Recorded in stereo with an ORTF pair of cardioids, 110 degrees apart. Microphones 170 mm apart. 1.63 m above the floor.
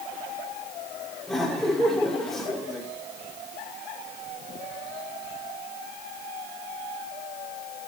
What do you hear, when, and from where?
1.3 s laughter: straight ahead, 5.5 m